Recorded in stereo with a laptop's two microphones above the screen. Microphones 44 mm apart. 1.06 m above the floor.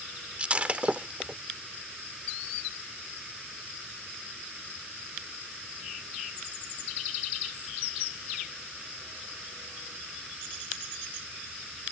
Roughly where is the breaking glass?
Right.